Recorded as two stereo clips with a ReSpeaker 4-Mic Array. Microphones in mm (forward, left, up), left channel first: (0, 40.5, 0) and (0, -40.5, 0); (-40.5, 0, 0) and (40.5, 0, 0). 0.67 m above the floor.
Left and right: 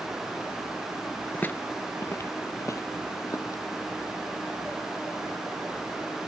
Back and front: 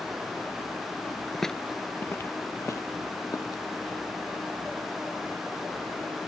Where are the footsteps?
90° left; by 3.6 s 140° left.